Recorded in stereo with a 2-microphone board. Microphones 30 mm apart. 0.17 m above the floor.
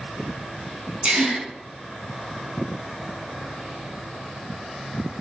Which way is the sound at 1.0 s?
40° right (ahead or behind).